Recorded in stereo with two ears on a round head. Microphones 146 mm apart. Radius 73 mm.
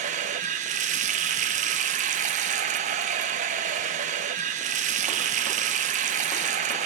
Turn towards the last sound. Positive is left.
turn(degrees=-45)  # may be behind; listen again after turning